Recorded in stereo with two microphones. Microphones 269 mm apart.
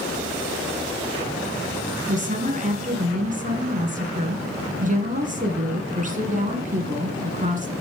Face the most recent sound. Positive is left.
turn(degrees=-30)  # may be behind; listen again after turning